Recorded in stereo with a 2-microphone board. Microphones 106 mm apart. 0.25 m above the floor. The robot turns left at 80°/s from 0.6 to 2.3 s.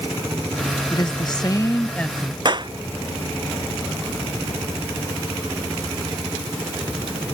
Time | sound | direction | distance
0.9 | a woman speaking | 105° left | ?
2.5 | a clap | 45° right (ahead or behind) | ?